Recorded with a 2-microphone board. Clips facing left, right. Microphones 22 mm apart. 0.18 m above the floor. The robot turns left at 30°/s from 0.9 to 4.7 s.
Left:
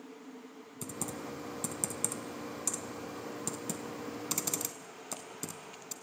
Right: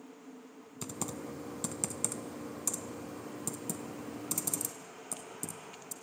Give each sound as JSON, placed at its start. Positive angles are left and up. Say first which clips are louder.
{"t": 0.8, "sound": "typing on a keyboard", "louder": "even", "side_deg": -25, "distance_m": 0.7}